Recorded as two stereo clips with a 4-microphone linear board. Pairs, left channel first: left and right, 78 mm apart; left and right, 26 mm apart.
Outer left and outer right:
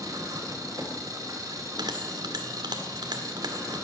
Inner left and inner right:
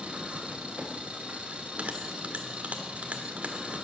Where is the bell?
70° right (ahead or behind), 1.7 m.